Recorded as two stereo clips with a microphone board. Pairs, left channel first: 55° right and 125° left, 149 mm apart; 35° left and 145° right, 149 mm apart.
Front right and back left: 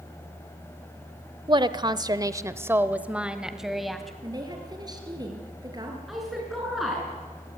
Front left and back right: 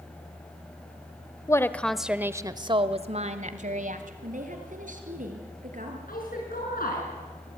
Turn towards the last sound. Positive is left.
turn(degrees=35)